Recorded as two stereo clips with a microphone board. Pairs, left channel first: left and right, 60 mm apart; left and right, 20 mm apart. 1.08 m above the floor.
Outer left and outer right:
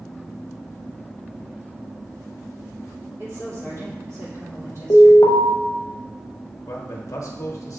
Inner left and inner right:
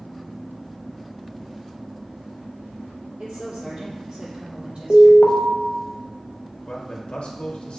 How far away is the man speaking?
About 0.9 m.